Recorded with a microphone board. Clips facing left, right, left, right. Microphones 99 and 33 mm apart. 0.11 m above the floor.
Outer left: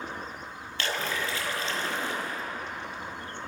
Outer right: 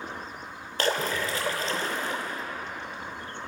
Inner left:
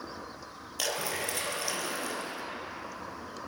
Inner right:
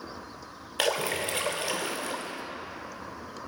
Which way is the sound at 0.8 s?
40° right (ahead or behind).